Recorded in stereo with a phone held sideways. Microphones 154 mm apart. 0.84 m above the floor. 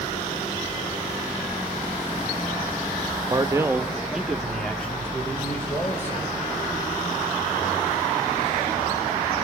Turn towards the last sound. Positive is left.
turn(degrees=15)  # may be behind; listen again after turning